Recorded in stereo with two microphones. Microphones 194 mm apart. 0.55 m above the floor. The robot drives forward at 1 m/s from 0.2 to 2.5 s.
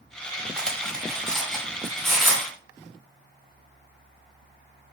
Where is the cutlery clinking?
5° left (ahead or behind), 1.4 m; by 2.5 s centre (ahead or behind), 3.5 m.